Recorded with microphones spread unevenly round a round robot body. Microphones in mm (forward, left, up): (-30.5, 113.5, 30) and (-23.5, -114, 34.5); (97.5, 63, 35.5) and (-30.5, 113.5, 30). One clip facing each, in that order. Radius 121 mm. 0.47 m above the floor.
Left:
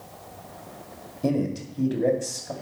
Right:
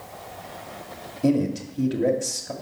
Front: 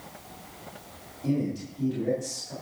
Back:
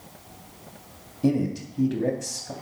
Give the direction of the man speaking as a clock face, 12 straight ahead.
6 o'clock.